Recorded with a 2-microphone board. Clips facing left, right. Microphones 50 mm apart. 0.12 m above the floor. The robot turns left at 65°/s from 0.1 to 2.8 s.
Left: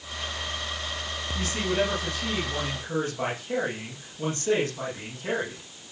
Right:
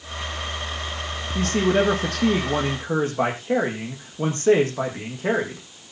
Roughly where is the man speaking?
Ahead right.